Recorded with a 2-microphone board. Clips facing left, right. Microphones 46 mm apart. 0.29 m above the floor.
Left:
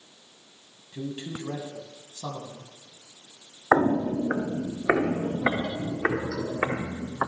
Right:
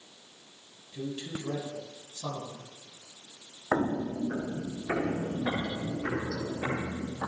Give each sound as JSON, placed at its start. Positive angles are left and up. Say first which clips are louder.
{"t": 0.9, "sound": "a man speaking", "louder": "left 2 dB", "side_deg": 25, "distance_m": 2.5}
{"t": 3.7, "sound": "footsteps", "louder": "left 7 dB", "side_deg": 35, "distance_m": 0.5}